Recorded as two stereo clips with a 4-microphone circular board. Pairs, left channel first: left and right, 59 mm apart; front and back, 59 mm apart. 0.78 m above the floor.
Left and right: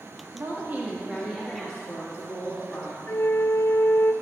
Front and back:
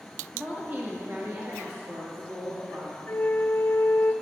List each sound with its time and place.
0.3 s a woman speaking: 120° right, 1.6 m; by 3.0 s 135° left, 2.5 m
3.1 s a flute: 50° left, 0.7 m